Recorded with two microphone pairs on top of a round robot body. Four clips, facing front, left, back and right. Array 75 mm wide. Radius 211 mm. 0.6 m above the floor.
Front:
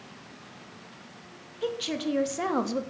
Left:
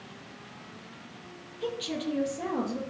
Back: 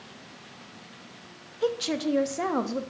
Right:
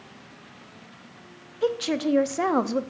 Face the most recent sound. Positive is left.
turn(degrees=-75)